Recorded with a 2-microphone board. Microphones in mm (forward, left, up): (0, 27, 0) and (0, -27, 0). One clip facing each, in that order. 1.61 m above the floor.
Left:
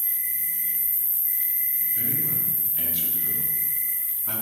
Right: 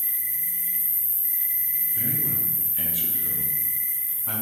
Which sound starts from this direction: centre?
A man speaking, at 1.9 s.